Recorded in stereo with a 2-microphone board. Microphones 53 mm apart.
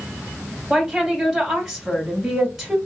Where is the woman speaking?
5° right (ahead or behind), 2 m.